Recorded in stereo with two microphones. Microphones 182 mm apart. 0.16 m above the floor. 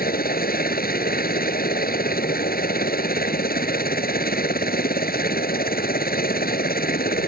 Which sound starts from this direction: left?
A helicopter, at 0.0 s.